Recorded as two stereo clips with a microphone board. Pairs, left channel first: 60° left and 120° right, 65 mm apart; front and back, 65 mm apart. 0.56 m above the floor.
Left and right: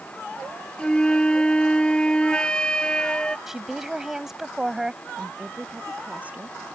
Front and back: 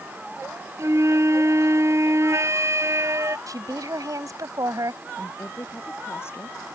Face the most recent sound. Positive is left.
turn(degrees=-55)